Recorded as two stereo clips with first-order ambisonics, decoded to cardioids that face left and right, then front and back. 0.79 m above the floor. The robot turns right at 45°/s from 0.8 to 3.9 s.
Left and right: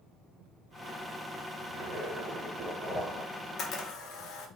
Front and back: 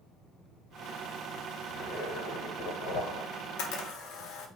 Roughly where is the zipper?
Ahead right.